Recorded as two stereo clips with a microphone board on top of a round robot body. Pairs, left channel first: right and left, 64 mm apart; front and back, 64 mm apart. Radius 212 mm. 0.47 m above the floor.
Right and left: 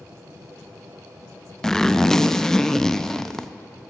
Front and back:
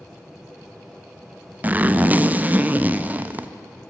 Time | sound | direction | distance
1.6 | a zipper | 165° right | 0.8 m